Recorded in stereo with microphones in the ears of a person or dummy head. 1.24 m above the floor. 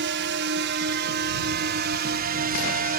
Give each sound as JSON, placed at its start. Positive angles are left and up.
{"t": 0.0, "sound": "a drone", "side_deg": -55}